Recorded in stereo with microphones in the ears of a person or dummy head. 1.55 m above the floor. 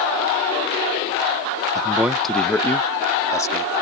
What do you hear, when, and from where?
1.8 s a man speaking: 20° right (ahead or behind); by 3.7 s 15° left (ahead or behind)